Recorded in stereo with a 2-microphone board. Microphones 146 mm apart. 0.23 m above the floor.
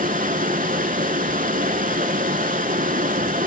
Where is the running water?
70° right (ahead or behind), 1.1 m.